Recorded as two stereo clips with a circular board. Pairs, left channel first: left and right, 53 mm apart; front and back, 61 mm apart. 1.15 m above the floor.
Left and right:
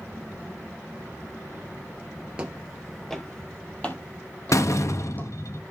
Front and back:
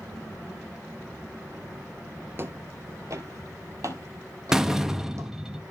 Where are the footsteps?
155° right, 1.4 m; by 5.3 s 145° left, 4 m.